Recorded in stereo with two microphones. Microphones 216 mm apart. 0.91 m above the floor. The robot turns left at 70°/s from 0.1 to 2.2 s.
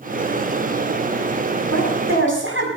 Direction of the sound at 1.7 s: 75° right.